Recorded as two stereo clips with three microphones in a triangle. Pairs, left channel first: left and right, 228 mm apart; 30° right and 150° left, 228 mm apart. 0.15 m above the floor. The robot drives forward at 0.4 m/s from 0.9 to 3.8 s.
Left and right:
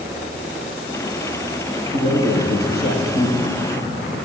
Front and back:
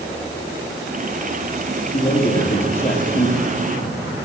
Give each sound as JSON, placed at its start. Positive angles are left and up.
{"t": 1.9, "sound": "a man speaking", "azimuth_deg": 45, "distance_m": 5.5}